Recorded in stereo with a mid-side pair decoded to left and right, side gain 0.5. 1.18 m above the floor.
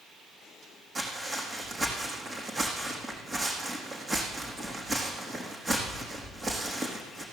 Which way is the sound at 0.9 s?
30° right.